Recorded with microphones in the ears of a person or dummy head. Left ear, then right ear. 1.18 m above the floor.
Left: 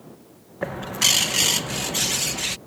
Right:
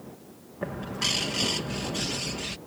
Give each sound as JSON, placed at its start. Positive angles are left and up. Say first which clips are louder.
{"t": 0.6, "sound": "a bird", "louder": "left 8 dB", "side_deg": 30}